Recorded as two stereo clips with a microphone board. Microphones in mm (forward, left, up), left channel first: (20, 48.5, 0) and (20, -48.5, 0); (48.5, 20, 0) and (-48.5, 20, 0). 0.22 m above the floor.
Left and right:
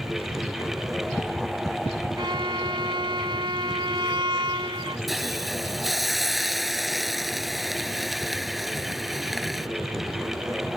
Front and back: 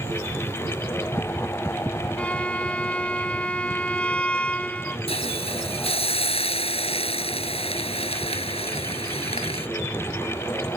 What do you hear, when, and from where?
2.2 s a violin: 75° right
5.1 s a hiss: straight ahead